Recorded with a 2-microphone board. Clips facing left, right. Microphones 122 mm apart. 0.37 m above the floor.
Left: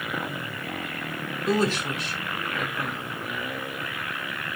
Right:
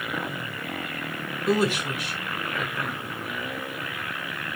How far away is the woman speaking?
About 1.1 m.